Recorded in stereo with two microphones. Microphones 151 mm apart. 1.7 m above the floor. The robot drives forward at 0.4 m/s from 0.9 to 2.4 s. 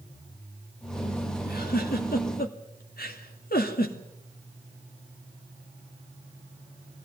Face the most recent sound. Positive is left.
turn(degrees=70)  # may be behind; listen again after turning